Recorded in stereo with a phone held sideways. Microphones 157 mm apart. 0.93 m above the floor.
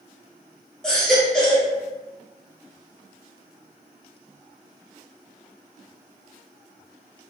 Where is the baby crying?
5° left (ahead or behind), 1.1 m.